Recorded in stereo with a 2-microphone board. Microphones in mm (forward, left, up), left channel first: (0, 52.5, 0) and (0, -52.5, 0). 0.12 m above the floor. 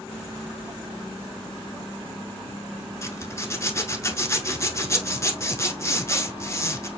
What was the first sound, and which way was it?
A zipper, 30° left (ahead or behind).